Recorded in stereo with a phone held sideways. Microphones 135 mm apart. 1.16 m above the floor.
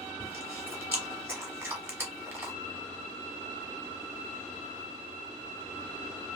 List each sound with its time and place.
0.2 s chewing: 15° right (ahead or behind), 1.3 m